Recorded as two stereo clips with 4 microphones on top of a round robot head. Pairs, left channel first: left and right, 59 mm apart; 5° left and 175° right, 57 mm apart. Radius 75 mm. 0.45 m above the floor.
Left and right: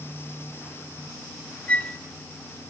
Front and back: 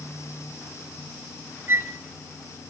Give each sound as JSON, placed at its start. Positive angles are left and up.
{"t": 1.7, "sound": "a flute", "azimuth_deg": 150, "distance_m": 1.0}